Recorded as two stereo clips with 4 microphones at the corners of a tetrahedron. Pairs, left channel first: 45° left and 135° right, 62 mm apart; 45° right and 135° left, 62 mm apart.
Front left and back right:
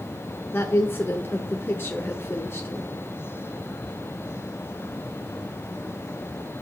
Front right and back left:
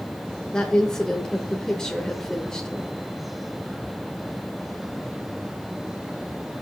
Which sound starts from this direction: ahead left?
A woman speaking, at 0.5 s.